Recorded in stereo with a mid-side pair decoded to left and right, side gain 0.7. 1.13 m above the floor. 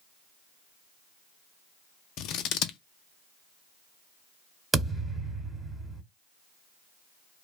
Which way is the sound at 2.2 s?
55° left.